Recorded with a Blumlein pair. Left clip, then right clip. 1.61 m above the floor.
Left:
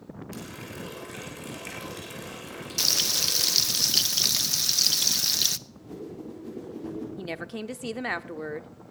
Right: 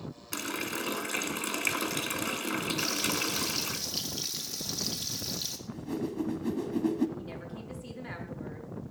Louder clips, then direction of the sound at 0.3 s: Right 8 dB; 65° right.